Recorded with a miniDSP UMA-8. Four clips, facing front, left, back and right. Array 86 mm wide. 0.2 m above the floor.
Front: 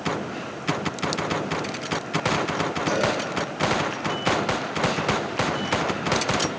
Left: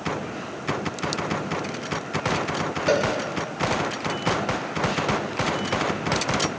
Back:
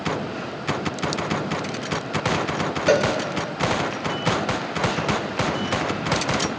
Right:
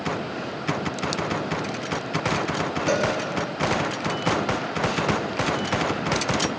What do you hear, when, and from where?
2.9 s a cowbell: 165° left, 0.9 m